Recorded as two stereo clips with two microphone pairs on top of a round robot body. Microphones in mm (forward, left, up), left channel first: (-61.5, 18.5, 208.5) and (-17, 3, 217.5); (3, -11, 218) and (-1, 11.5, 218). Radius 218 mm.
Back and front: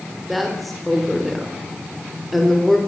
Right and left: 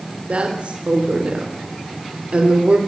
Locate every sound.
0.3 s a woman speaking: 75° left, 4 m